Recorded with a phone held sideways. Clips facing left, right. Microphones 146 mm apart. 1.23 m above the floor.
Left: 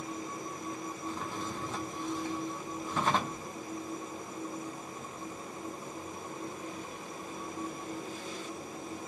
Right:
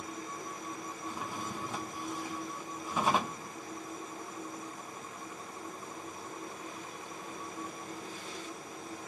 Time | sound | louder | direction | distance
0.0 | a machine running | left 3 dB | 25° left (ahead or behind) | 1.3 m
1.1 | a drawer | left 1 dB | 10° right (ahead or behind) | 0.6 m